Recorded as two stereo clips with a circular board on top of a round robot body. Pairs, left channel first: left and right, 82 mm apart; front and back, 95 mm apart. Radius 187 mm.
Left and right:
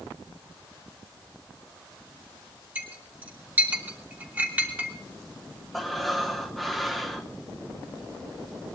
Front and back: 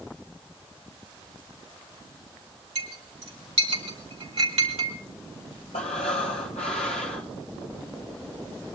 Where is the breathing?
Straight ahead, 0.8 m.